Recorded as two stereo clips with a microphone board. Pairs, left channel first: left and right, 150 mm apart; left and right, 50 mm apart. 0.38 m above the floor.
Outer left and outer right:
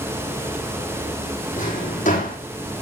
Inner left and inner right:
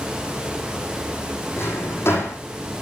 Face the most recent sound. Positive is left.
turn(degrees=55)  # may be behind; listen again after turning